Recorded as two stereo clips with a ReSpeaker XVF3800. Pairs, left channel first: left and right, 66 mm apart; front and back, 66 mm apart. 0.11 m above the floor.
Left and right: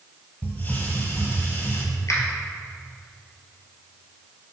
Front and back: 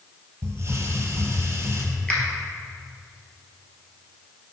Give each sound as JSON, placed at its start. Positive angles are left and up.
{"t": 0.4, "sound": "a hiss", "azimuth_deg": 145, "distance_m": 1.4}
{"t": 2.1, "sound": "a finger snap", "azimuth_deg": 75, "distance_m": 1.7}